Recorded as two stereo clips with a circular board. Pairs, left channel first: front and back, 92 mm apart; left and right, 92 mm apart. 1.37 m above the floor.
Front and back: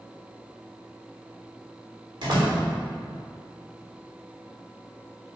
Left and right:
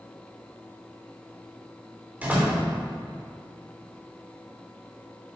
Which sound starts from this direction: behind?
A door slam, at 2.2 s.